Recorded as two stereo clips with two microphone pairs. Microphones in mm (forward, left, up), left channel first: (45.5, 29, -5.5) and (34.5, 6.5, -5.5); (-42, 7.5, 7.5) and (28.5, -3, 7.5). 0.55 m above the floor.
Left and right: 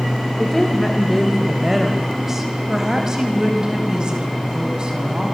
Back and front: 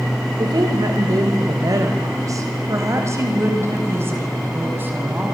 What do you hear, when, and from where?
0.4 s a woman speaking: 10° right, 3 m; by 5.3 s 70° right, 6 m